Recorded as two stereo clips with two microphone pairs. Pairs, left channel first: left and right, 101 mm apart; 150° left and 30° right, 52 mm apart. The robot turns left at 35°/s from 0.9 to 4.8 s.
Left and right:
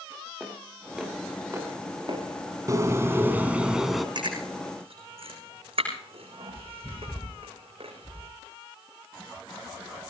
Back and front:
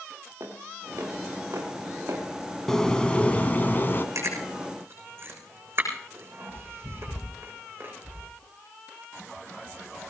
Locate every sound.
0.4 s footsteps: straight ahead, 5 m; by 2.2 s 60° right, 5.5 m
2.7 s a bird: 135° right, 1.3 m; by 4.0 s 175° left, 1.3 m
4.2 s chewing: 55° right, 7 m; by 8.3 s 75° right, 7 m